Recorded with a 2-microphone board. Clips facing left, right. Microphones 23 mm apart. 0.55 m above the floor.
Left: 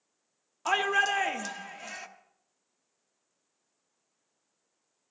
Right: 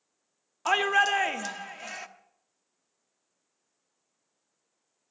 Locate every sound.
0.7 s a shout: 10° right (ahead or behind), 0.9 m